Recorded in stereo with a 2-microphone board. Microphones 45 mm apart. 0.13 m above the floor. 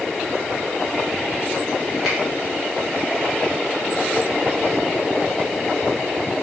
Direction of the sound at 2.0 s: Centre (ahead or behind).